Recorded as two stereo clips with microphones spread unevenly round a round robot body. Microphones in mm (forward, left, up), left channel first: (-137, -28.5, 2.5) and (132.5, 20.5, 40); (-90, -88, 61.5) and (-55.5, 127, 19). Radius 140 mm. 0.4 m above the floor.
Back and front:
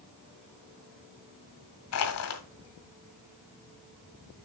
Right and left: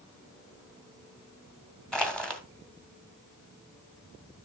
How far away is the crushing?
About 1.6 m.